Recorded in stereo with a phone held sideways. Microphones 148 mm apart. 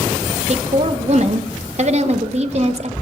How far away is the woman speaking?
About 0.6 m.